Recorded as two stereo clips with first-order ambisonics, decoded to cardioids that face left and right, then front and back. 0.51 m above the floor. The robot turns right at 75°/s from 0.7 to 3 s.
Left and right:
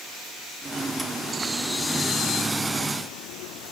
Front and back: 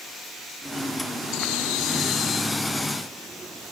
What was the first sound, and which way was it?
A bird, 25° right.